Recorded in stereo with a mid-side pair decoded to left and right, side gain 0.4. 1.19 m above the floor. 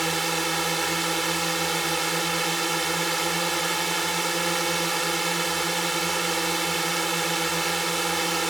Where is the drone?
20° right.